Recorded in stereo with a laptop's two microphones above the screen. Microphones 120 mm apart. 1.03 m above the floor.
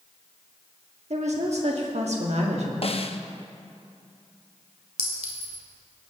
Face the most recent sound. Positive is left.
turn(degrees=-65)  # may be behind; listen again after turning